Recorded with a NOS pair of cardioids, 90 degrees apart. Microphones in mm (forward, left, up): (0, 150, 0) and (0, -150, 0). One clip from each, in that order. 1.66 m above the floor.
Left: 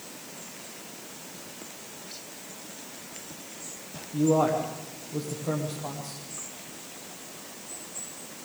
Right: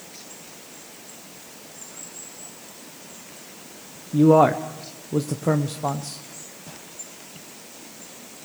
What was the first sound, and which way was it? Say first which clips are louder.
A man speaking: right 8 dB; 60° right.